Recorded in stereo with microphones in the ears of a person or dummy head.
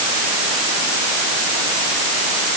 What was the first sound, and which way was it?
Only background noise.